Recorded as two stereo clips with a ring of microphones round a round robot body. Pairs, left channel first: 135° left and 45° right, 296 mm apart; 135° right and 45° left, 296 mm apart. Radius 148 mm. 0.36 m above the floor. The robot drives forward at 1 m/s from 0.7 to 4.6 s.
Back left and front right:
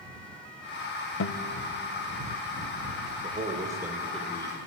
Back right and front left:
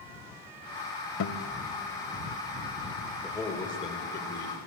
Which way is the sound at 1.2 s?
Straight behind.